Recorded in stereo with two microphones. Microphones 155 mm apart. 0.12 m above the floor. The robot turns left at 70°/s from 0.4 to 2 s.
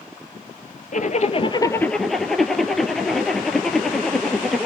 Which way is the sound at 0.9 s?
75° left.